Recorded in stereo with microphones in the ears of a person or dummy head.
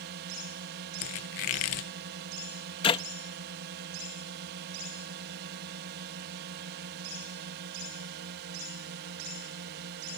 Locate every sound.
0.0 s a drone: 60° right (ahead or behind)
1.0 s a squeak: 30° left (ahead or behind)
2.8 s a clap: 30° left (ahead or behind)